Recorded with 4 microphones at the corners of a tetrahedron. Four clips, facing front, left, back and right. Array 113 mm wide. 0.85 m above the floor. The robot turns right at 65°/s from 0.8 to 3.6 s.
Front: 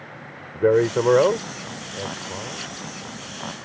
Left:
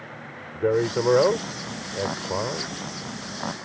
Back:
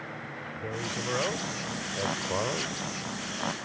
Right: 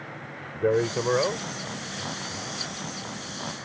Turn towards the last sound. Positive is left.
turn(degrees=-175)